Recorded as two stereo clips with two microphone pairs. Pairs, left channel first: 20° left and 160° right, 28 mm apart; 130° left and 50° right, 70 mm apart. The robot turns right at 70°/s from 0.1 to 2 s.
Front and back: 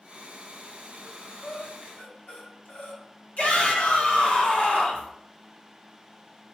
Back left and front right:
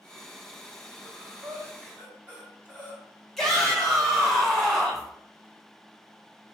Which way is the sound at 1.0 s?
50° right.